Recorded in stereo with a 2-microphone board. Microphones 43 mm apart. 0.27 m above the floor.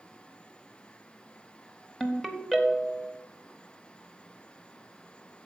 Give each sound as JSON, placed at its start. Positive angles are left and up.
{"t": 2.0, "sound": "a ringtone", "side_deg": 5, "distance_m": 1.0}